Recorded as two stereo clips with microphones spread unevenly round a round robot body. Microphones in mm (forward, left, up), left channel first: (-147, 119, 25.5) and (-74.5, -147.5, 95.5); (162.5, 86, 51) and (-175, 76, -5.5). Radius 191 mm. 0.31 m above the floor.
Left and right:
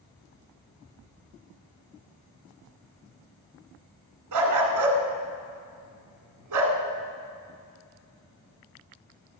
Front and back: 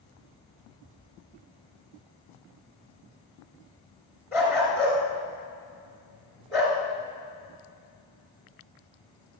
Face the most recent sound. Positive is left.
turn(degrees=-90)